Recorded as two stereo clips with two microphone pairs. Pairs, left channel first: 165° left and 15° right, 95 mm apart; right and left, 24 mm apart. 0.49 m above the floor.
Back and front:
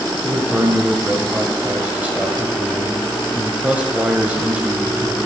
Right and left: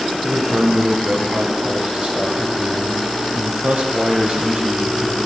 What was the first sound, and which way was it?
A man speaking, 60° left.